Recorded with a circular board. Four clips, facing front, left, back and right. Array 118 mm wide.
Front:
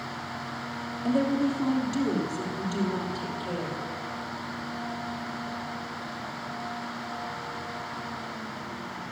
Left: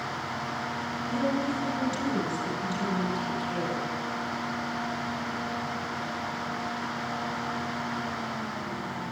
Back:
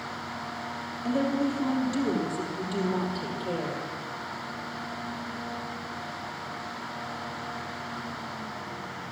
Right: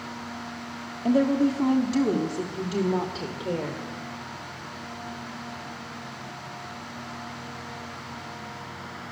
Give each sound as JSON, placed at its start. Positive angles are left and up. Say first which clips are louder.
{"t": 1.1, "sound": "a woman speaking", "louder": "right 8 dB, front 2 dB", "azimuth_deg": -80, "distance_m": 4.5}